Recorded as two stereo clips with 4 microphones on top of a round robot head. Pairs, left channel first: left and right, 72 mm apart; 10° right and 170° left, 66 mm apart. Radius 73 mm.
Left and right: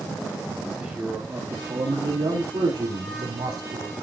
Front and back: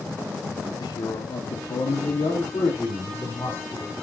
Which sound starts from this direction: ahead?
A man speaking, at 0.8 s.